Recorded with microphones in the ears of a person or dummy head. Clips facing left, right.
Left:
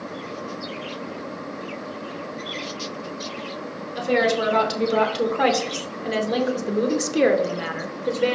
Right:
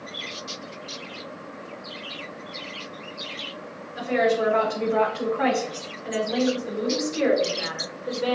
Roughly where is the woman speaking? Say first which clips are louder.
Left 1 dB; left.